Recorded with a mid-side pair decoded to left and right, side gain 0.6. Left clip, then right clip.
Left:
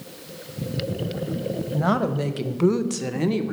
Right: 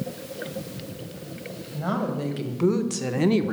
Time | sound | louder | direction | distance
1.7 | a woman speaking | left 4 dB | 45° left | 1.1 m